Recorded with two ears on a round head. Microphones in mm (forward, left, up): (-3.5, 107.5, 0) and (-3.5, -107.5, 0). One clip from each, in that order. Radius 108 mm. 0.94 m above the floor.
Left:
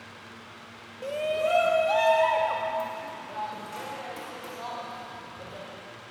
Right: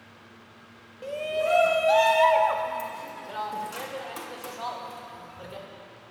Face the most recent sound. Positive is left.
turn(degrees=-35)  # may be behind; listen again after turning